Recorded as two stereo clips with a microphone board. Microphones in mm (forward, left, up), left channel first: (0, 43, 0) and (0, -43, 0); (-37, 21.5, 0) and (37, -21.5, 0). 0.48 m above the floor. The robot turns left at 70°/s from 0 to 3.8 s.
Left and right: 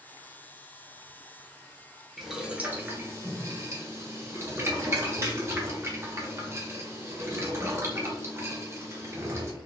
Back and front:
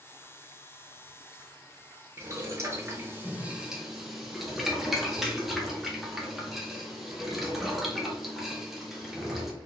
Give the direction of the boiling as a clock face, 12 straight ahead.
12 o'clock.